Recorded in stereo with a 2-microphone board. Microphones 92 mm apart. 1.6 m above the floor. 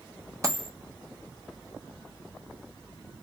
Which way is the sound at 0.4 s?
35° right (ahead or behind).